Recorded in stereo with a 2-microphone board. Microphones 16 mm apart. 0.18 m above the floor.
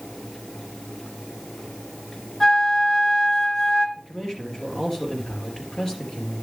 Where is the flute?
45° left (ahead or behind), 2.5 m.